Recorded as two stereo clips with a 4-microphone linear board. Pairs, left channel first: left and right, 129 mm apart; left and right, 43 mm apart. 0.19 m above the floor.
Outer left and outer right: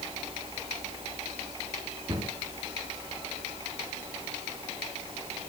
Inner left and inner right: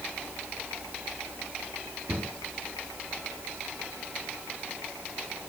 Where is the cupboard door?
35° right (ahead or behind), 3 m.